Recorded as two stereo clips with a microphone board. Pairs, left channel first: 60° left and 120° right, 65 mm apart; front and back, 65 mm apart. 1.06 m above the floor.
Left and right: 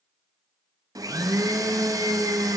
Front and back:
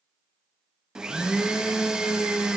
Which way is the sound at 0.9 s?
100° right.